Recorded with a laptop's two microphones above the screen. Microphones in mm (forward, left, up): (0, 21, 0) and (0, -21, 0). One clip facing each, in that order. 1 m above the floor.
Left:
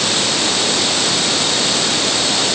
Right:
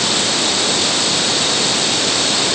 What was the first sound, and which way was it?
Only background noise.